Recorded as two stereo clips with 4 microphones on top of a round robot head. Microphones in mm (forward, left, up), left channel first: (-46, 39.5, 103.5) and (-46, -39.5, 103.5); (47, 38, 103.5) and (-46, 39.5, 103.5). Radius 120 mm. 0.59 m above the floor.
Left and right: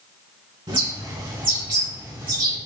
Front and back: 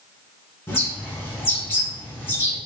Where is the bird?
65° right, 3 m.